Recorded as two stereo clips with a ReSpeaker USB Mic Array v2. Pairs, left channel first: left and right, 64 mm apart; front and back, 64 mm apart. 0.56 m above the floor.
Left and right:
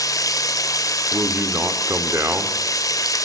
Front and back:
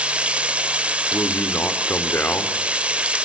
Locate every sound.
0.0 s running water: 110° left, 1.2 m
1.1 s a man speaking: 55° right, 1.7 m